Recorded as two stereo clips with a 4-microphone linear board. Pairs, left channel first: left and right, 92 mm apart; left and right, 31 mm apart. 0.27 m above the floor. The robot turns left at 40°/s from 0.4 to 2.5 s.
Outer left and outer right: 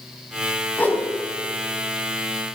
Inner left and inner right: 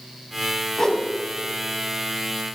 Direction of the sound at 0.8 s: 15° left (ahead or behind).